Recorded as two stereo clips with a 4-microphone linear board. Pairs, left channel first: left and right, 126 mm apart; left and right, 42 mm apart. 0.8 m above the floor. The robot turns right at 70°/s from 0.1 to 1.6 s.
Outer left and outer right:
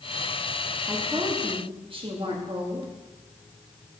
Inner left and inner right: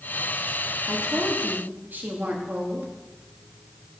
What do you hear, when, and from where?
0.9 s a woman speaking: 170° right, 1.4 m; by 2.9 s 120° right, 1.4 m